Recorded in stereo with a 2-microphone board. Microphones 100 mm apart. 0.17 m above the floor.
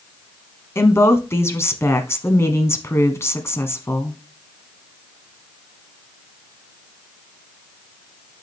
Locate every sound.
0.8 s a woman speaking: 30° left (ahead or behind), 1.1 m